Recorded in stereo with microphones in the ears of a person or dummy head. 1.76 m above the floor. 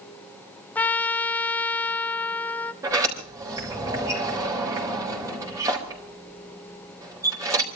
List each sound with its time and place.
0.8 s a trumpet: 10° left (ahead or behind), 0.6 m
2.8 s a sliding door: 20° right (ahead or behind), 4.5 m